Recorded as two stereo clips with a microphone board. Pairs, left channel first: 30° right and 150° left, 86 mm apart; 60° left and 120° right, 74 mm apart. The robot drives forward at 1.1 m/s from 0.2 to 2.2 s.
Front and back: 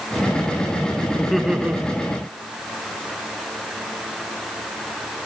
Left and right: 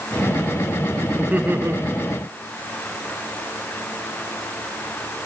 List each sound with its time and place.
1.2 s laughter: 105° right, 1.4 m; by 1.8 s 145° right, 1.6 m